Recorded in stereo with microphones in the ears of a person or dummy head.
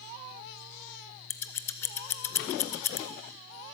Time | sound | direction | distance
1.3 | scissors | 10° left (ahead or behind) | 0.8 m